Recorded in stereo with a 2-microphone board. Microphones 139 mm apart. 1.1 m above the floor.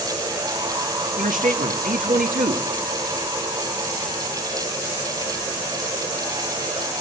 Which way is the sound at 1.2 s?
80° right.